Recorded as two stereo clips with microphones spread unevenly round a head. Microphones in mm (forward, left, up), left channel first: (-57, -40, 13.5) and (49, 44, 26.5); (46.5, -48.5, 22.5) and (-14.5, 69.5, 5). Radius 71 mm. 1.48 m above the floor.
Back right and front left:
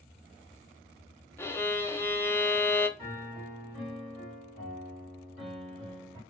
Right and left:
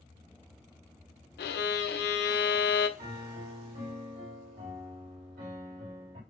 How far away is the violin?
About 0.5 m.